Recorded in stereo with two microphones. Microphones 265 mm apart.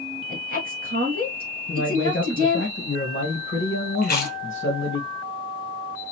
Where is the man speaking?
50° left (ahead or behind), 1.6 m.